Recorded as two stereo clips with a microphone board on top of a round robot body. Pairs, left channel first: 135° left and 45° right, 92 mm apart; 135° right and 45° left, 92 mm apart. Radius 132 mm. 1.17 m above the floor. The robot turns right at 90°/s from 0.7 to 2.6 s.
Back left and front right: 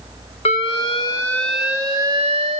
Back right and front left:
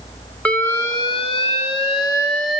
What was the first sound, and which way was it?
An alarm, 150° left.